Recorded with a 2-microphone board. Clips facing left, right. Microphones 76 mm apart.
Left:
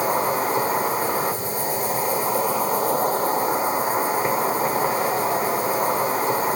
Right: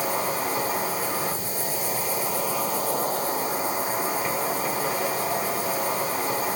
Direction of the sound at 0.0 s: 40° left (ahead or behind).